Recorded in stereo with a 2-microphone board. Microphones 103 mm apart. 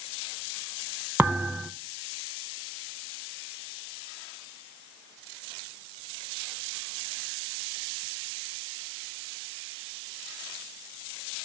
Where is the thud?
15° right (ahead or behind), 1.4 m.